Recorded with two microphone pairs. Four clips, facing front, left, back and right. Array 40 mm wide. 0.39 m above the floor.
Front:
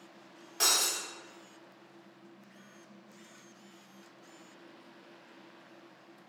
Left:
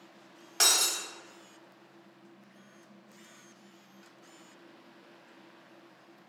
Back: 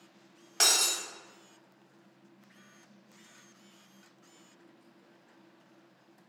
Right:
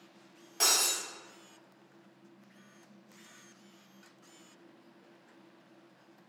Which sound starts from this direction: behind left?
Breaking glass, at 0.6 s.